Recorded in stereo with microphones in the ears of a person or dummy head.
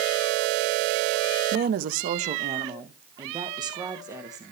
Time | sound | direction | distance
1.5 | a woman speaking | 55° right (ahead or behind) | 0.6 m